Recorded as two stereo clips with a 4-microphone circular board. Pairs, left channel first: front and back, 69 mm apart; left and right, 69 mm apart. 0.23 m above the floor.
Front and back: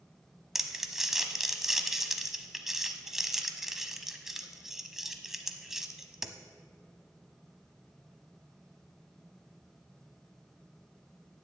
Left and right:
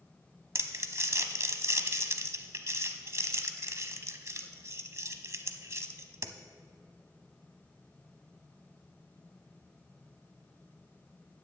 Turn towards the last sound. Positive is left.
turn(degrees=-100)